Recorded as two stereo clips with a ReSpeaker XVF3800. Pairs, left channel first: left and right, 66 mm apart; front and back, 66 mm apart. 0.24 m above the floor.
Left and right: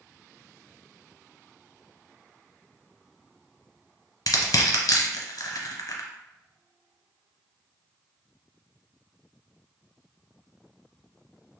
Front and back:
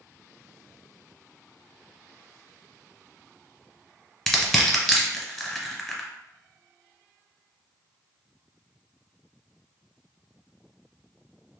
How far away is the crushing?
About 1.1 m.